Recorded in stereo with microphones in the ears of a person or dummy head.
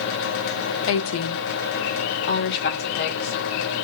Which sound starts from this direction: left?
A woman speaking, at 0.9 s.